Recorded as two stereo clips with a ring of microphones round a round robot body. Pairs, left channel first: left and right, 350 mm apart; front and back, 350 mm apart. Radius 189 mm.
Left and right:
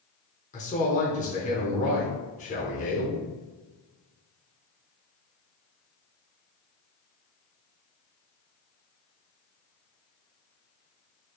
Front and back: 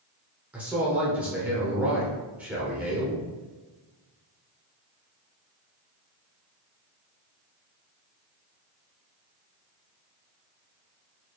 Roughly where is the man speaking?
Left.